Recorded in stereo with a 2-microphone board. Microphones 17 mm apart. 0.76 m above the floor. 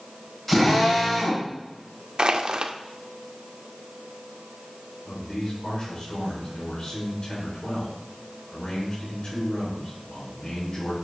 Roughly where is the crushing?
Right.